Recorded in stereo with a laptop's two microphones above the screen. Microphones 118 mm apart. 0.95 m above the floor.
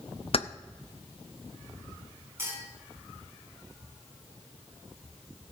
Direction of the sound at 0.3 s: 55° left (ahead or behind).